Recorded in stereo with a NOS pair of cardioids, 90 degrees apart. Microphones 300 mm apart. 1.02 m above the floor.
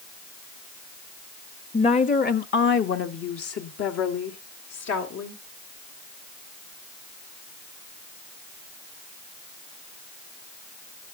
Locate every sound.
1.7 s a woman speaking: 15° left, 1.0 m; by 5.4 s 65° left, 2.5 m